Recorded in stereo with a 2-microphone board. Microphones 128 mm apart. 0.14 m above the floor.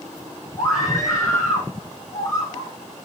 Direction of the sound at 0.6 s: 25° left (ahead or behind).